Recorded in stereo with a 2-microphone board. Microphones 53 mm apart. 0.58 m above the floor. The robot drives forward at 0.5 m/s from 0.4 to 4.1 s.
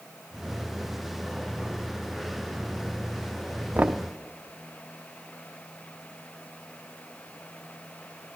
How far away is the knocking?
About 0.6 m.